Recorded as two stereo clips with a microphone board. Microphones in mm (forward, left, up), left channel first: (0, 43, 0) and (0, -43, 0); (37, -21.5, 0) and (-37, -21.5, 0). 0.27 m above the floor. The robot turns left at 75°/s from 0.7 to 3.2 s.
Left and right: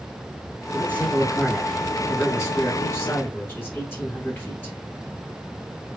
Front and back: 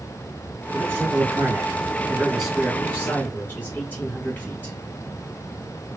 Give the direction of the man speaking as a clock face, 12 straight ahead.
4 o'clock.